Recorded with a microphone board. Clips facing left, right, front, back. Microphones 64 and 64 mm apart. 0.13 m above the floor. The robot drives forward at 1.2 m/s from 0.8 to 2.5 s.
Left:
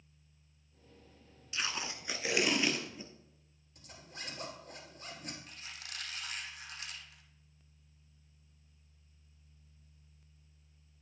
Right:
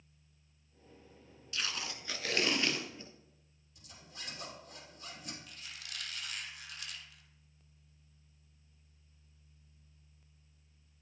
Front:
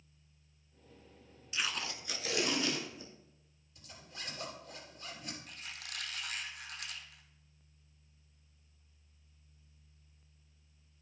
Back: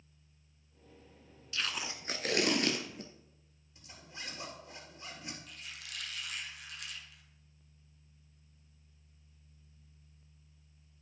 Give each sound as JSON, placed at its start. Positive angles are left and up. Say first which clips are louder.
{"t": 1.5, "sound": "tape being pulled", "louder": "left 2 dB, even", "azimuth_deg": 50, "distance_m": 0.6}
{"t": 3.8, "sound": "a zipper", "louder": "left 3 dB, back 1 dB", "azimuth_deg": 120, "distance_m": 3.0}
{"t": 5.5, "sound": "a squeak", "louder": "left 1 dB, front 1 dB", "azimuth_deg": 40, "distance_m": 1.4}